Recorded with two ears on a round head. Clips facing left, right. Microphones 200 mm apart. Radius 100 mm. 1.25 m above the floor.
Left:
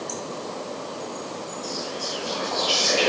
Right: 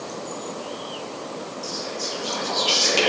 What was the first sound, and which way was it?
Whispering, 70° right (ahead or behind).